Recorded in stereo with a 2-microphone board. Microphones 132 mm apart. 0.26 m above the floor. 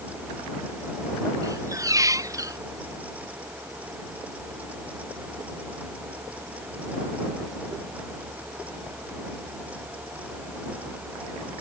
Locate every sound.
1.4 s a squeak: 25° right (ahead or behind)